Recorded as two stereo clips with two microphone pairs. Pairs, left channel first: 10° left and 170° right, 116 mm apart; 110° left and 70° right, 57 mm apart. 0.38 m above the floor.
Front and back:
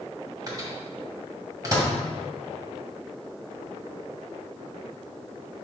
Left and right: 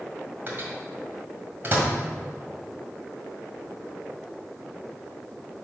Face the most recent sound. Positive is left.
turn(degrees=-115)